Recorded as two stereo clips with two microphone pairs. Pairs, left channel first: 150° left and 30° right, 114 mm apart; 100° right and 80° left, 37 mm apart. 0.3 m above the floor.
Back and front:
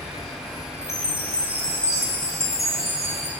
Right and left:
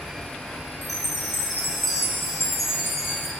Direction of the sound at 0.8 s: Straight behind.